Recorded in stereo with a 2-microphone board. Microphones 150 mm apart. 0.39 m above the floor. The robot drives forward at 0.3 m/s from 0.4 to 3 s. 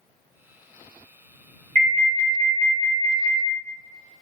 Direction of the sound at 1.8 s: 50° right (ahead or behind).